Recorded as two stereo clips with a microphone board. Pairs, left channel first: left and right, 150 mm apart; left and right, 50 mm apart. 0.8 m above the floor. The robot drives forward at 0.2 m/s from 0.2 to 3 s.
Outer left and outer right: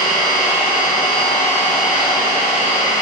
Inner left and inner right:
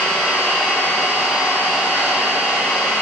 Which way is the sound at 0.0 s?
10° left (ahead or behind).